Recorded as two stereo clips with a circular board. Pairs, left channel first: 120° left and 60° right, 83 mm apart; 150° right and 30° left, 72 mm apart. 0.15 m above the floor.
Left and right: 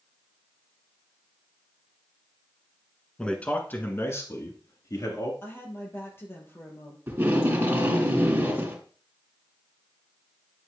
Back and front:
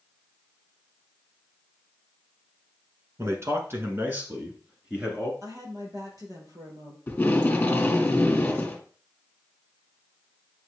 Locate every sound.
3.2 s a man speaking: 45° left, 1.7 m; by 5.3 s 100° left, 2.5 m
5.4 s a woman speaking: 60° left, 3 m
7.1 s tape being pulled: 100° right, 2 m